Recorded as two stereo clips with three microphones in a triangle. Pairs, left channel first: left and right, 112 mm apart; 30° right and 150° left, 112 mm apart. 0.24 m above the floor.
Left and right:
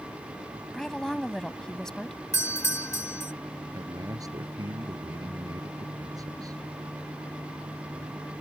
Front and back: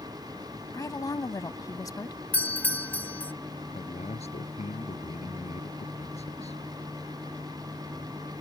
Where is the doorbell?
40° left.